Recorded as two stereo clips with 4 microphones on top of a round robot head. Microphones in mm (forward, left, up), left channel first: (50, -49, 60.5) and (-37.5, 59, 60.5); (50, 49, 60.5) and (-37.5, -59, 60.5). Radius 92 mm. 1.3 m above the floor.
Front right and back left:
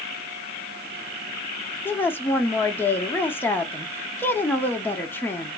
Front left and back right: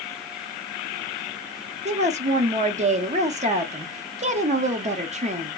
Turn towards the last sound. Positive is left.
turn(degrees=-125)